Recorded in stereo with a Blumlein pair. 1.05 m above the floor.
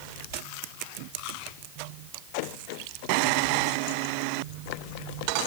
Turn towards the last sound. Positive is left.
No sound to turn to.